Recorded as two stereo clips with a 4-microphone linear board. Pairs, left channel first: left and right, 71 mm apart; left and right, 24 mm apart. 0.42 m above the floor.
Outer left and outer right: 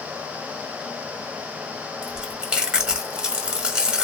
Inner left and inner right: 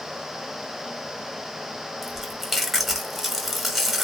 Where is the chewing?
10° right (ahead or behind), 0.8 m.